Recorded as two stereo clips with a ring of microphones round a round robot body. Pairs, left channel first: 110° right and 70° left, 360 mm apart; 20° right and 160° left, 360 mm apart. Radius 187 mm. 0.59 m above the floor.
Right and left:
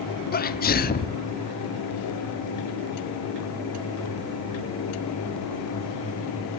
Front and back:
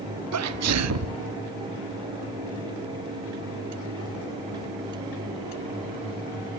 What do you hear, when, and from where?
0.3 s a sneeze: 170° right, 1.1 m